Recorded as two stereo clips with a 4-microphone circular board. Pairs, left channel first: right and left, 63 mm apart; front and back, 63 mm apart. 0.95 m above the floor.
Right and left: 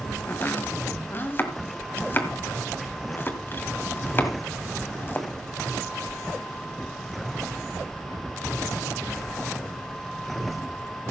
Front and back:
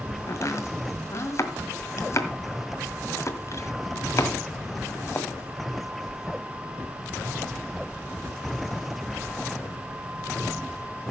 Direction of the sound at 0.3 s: 35° right.